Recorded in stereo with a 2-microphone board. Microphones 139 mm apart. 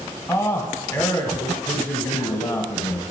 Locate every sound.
0.3 s a man speaking: 20° left (ahead or behind), 1.3 m